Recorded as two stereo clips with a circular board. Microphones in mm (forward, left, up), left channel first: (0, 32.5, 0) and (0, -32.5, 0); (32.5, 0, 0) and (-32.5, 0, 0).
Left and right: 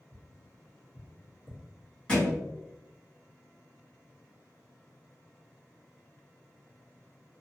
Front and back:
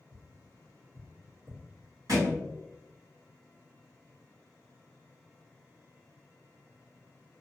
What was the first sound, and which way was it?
Tapping, 145° left.